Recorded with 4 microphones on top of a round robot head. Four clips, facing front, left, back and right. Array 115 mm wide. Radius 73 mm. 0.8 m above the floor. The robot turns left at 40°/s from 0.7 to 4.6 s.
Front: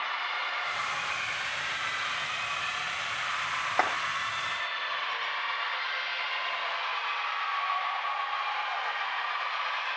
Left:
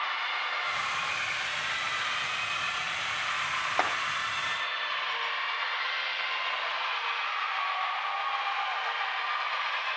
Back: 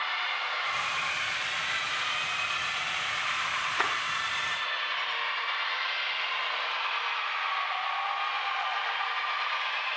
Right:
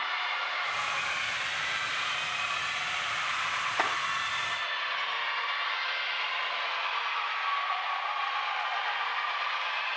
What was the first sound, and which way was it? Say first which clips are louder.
A clap: left 1 dB, front 4 dB; 35° left.